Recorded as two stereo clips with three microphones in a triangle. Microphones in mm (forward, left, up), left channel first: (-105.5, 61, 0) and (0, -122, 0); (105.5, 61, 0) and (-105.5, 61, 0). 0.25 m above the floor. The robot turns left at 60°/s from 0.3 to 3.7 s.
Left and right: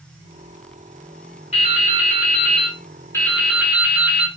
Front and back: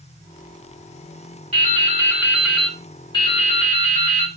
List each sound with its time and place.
1.5 s dripping: 150° left, 0.8 m; by 4.3 s 20° left, 0.8 m